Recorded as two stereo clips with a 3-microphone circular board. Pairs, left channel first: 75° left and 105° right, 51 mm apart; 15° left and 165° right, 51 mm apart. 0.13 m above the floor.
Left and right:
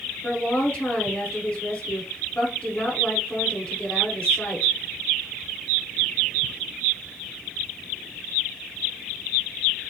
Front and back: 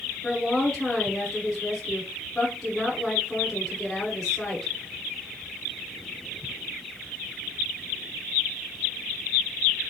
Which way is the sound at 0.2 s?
105° left.